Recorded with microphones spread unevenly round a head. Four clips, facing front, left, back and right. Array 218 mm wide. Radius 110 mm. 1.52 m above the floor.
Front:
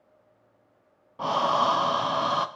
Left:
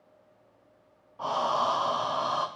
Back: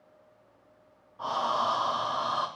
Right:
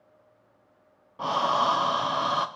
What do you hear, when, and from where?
1.2 s breathing: 30° right, 0.6 m